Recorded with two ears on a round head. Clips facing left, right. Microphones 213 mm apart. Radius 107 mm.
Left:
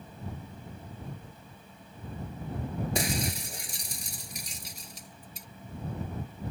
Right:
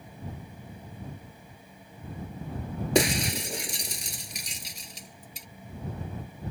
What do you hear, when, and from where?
3.0 s breaking glass: 60° right (ahead or behind)